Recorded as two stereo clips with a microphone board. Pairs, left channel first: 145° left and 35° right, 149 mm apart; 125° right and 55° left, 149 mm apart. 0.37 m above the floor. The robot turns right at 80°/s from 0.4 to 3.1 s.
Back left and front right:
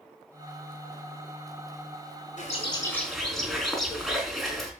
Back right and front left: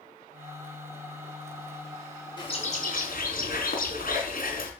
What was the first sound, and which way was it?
A bird, 175° left.